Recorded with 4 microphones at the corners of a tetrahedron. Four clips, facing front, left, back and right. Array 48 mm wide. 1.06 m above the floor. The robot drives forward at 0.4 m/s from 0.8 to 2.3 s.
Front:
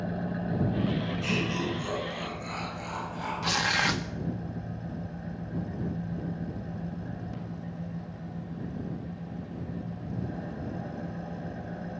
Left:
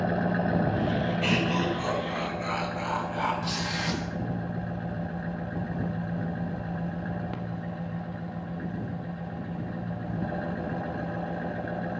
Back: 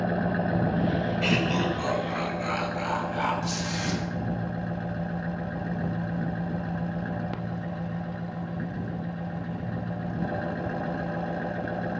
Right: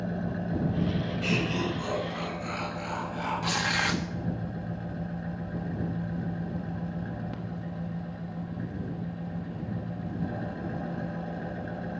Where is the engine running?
135° left, 0.7 m; by 12.0 s 155° left, 1.2 m.